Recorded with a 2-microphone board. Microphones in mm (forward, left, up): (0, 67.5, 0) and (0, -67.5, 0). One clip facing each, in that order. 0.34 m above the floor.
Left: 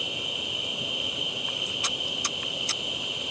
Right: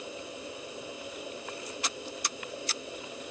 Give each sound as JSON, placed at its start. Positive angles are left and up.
{"t": 0.0, "sound": "an insect", "side_deg": 70}